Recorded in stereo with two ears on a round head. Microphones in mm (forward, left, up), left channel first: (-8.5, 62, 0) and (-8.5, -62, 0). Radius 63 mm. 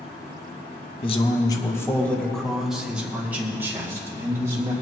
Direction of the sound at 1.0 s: 45° left (ahead or behind).